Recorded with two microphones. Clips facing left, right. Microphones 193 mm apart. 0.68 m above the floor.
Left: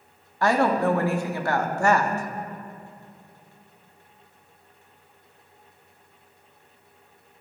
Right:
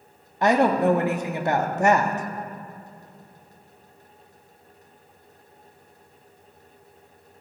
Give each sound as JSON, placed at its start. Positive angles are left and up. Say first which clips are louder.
{"t": 0.4, "sound": "a woman speaking", "louder": "right 2 dB", "side_deg": -20, "distance_m": 0.8}